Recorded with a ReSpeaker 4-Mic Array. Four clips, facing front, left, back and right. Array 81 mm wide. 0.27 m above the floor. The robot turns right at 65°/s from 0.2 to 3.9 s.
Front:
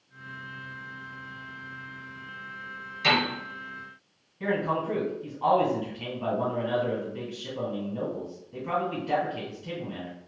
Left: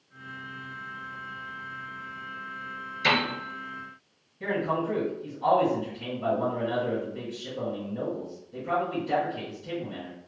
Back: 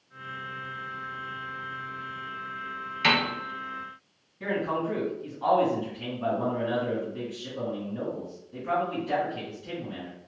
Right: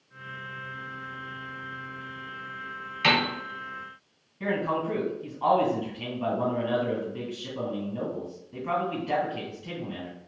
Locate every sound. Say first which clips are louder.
3.0 s a piano: right 1 dB, even; 125° right, 1.2 m; by 3.3 s 105° right, 1.2 m
4.4 s a man speaking: even, front 1 dB; 65° right, 1.8 m